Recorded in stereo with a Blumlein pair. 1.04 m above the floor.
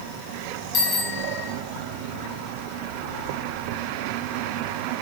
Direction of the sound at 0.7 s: 30° left.